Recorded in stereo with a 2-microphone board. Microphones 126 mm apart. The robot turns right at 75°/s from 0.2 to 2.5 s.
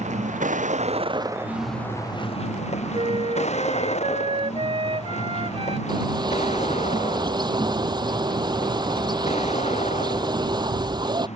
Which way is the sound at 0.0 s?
110° right.